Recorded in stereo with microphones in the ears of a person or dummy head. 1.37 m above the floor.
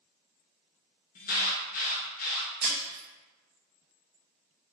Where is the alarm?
50° left (ahead or behind), 0.9 m.